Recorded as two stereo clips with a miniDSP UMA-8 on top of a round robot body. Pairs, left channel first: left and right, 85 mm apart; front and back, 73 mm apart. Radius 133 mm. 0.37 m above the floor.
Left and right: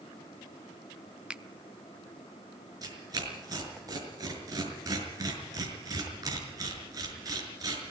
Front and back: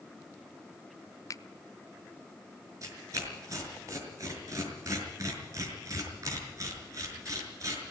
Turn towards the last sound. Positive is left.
turn(degrees=-135)